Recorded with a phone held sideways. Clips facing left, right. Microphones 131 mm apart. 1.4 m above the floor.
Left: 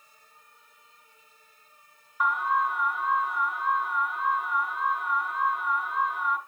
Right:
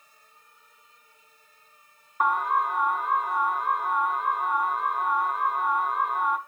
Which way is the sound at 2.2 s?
45° right (ahead or behind).